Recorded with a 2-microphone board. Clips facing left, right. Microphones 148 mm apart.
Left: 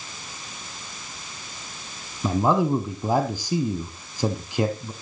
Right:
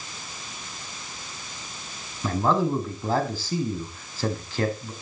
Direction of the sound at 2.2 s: 15° left (ahead or behind).